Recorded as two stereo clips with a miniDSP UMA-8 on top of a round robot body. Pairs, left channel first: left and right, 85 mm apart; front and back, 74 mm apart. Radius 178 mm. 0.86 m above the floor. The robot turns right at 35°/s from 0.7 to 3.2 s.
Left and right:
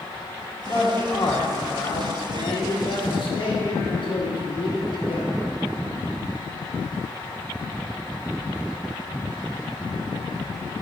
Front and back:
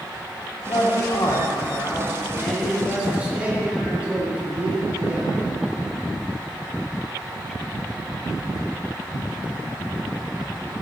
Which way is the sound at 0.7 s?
20° left.